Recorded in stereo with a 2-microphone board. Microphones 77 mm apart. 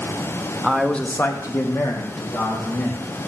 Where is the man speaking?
5° right (ahead or behind), 1.0 m; by 3.1 s 50° left (ahead or behind), 3 m.